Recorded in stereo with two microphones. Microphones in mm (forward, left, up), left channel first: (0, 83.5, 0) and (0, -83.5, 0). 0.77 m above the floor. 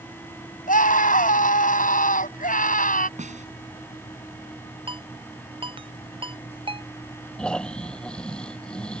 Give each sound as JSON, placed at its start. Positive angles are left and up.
{"t": 0.7, "sound": "a scream", "side_deg": 60}
{"t": 3.2, "sound": "a snare drum", "side_deg": -50}
{"t": 4.9, "sound": "a ringtone", "side_deg": -35}
{"t": 7.4, "sound": "snoring", "side_deg": 5}